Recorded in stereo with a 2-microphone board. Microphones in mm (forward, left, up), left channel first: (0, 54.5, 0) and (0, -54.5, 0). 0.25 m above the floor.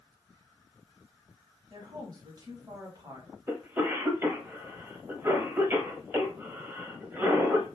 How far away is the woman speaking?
About 1.2 m.